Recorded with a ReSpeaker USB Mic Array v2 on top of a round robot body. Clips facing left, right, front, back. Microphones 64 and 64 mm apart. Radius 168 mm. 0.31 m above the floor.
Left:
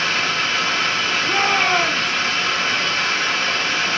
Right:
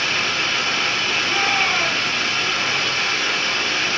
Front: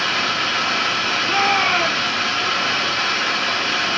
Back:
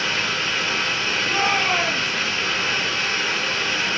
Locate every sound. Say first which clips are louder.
0.0 s running water: left 1 dB, front 3 dB; 25° left, 2.5 m
1.2 s a shout: left 3 dB, front 3 dB; 45° left, 1.7 m